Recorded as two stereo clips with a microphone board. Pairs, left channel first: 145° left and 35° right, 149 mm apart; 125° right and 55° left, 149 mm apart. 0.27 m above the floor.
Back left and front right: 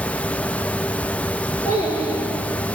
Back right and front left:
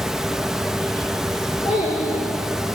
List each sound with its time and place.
1.6 s a child speaking: 85° right, 3 m